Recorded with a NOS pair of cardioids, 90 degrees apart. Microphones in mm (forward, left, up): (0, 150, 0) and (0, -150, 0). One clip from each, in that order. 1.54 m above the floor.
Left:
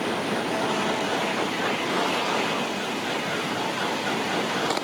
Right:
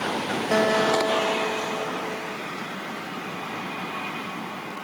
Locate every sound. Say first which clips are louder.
0.5 s a guitar: right 8 dB; 65° right